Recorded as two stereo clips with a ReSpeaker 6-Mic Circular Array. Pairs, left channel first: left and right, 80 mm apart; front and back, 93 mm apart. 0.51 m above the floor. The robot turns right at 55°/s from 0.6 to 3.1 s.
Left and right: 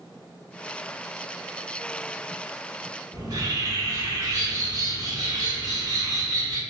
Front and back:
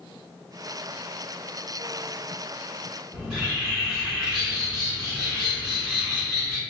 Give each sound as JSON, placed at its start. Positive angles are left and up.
{"t": 3.1, "sound": "a bird", "azimuth_deg": -95, "distance_m": 1.7}